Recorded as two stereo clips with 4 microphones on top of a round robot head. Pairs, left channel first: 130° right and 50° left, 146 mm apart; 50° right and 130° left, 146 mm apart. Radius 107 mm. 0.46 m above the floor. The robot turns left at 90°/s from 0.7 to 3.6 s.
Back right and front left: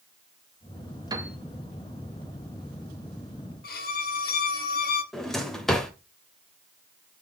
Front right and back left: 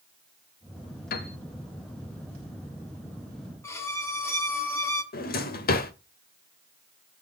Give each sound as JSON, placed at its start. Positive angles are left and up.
{"t": 1.1, "sound": "a piano", "azimuth_deg": -15, "distance_m": 0.7}
{"t": 3.6, "sound": "a violin", "azimuth_deg": -120, "distance_m": 1.2}
{"t": 5.1, "sound": "a drawer", "azimuth_deg": -45, "distance_m": 1.1}